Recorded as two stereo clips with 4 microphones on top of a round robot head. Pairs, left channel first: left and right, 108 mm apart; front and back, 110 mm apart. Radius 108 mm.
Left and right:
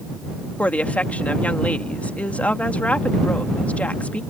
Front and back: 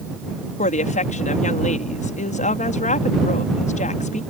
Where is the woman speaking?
10° left.